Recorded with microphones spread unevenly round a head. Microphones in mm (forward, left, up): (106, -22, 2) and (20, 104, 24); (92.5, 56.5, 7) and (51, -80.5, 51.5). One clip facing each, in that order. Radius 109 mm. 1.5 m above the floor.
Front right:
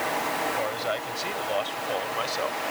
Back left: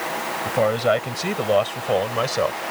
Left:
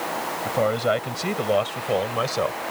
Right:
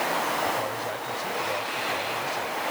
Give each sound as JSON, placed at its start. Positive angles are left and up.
{"t": 0.5, "sound": "a man speaking", "azimuth_deg": 105}